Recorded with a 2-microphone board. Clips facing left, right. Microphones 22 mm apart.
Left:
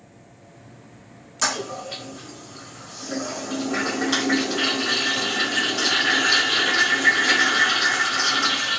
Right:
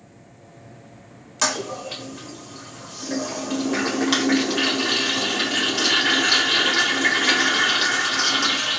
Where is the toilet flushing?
30° right (ahead or behind), 1.1 m.